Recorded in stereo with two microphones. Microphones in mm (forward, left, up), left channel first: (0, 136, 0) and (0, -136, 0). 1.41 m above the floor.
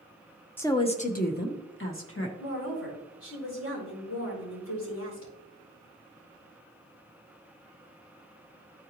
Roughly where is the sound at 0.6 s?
Centre.